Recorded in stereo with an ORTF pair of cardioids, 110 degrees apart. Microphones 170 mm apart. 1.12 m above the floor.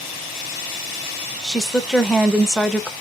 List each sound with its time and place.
1.4 s a woman speaking: straight ahead, 0.6 m